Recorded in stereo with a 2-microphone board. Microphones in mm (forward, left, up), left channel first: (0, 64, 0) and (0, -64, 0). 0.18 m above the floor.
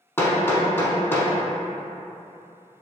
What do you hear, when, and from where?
0.2 s hammering: 20° left (ahead or behind), 0.8 m